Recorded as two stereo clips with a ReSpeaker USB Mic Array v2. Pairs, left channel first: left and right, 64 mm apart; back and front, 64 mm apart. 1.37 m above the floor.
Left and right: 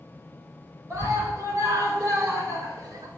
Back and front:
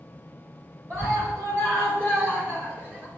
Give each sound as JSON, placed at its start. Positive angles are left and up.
{"t": 0.9, "sound": "a scream", "azimuth_deg": -45, "distance_m": 7.5}